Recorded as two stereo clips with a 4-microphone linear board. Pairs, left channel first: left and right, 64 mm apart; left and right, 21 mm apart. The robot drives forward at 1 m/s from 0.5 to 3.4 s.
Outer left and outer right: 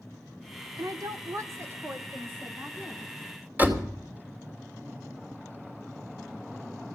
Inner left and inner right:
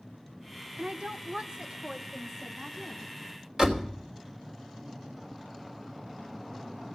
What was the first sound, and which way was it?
A woman speaking, 70° right (ahead or behind).